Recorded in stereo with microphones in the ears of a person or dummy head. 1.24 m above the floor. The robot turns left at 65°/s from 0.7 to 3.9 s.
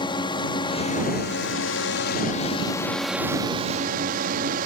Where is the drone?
155° left; by 4.7 s 55° right.